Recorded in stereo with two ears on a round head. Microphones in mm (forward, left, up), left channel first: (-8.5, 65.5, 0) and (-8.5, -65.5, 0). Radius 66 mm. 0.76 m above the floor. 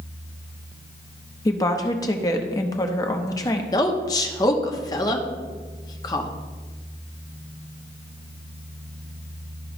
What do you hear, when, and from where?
1.4 s a woman speaking: 25° left (ahead or behind), 0.8 m
3.7 s a woman speaking: 25° left (ahead or behind), 0.9 m